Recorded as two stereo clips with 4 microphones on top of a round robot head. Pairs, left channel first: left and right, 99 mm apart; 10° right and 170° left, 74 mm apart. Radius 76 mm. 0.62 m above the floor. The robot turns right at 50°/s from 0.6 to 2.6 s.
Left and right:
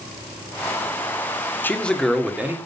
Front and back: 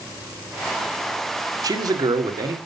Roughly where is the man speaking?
Behind left.